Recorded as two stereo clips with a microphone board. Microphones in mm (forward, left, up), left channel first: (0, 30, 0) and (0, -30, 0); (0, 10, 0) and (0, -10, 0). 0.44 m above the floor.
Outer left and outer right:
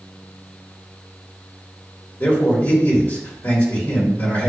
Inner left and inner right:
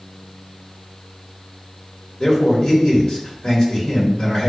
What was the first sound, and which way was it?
A man speaking, 40° left (ahead or behind).